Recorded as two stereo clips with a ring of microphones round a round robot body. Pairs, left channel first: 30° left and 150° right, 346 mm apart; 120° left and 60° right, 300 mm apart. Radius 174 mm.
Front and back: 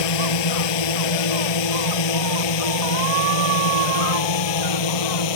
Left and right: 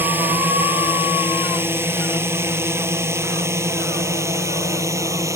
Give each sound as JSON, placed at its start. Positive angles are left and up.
{"t": 0.0, "sound": "a drone", "azimuth_deg": 25}